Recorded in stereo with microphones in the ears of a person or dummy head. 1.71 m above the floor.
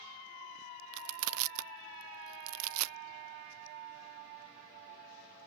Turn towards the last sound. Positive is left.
turn(degrees=-80)